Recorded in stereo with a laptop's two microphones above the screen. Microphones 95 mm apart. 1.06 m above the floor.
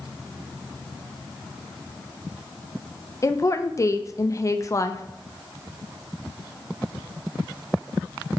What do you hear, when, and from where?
3.2 s a woman speaking: 35° left (ahead or behind), 0.6 m